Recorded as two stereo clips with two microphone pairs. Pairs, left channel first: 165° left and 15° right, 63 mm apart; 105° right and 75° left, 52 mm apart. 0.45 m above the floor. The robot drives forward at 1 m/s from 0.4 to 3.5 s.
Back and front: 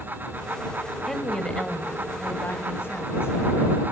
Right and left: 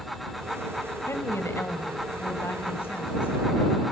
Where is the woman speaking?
105° right, 2.0 m; by 3.8 s 150° right, 3.5 m.